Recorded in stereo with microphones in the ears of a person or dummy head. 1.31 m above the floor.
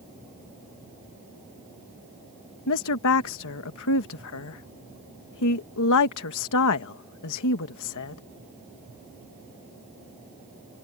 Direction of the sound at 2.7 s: 70° left (ahead or behind).